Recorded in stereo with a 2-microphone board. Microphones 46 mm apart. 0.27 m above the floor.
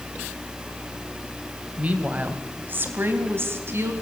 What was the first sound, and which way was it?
A woman speaking, 30° right (ahead or behind).